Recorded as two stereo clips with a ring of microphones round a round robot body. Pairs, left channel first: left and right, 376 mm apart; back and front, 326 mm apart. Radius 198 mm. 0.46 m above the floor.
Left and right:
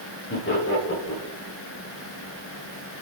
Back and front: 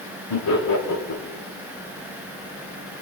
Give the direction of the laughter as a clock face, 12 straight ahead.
7 o'clock.